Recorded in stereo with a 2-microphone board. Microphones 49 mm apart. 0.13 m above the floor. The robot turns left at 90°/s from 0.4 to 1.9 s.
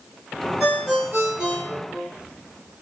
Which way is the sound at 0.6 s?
35° right.